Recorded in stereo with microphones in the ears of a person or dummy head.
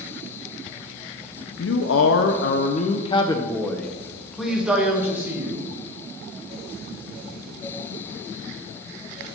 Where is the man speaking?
85° left, 0.7 m; by 5.7 s 15° right (ahead or behind), 1.8 m.